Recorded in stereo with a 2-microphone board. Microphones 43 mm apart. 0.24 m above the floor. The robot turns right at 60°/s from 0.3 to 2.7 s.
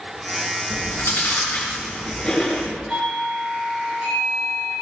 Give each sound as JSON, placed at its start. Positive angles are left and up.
{"t": 0.7, "sound": "chewing", "side_deg": 65, "distance_m": 3.5}
{"t": 2.9, "sound": "a doorbell", "side_deg": -25, "distance_m": 4.5}